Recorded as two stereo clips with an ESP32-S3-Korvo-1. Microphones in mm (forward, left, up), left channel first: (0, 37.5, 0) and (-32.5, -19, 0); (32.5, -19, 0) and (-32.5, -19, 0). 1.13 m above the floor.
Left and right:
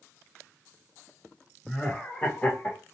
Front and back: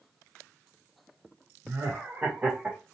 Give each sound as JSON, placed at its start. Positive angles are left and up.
{"t": 1.6, "sound": "laughter", "azimuth_deg": 140, "distance_m": 1.3}